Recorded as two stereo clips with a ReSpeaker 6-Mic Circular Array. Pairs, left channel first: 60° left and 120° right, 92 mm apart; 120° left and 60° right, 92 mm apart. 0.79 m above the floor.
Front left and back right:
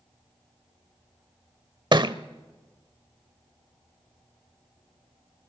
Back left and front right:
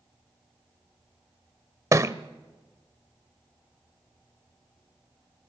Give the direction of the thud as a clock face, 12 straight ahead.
4 o'clock.